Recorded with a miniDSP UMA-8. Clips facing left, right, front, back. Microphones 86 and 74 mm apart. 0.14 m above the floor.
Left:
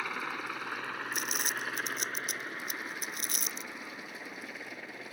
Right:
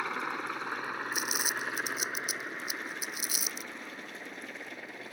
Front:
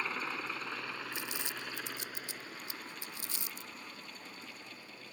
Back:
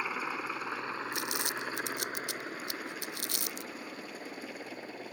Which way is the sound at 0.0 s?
135° right.